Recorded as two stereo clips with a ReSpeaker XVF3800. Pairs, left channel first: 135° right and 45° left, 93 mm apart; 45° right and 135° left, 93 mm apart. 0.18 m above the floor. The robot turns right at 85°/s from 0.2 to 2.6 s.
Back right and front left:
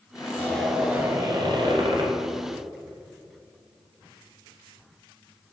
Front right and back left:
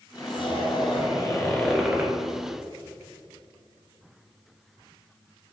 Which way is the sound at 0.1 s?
85° right.